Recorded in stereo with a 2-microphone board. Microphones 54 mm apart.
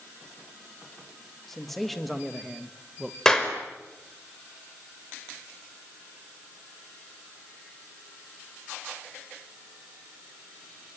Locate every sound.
1.5 s a man speaking: 5° left (ahead or behind), 2.5 m; by 3.1 s 10° right (ahead or behind), 1.7 m
3.2 s a clap: 10° left (ahead or behind), 4.5 m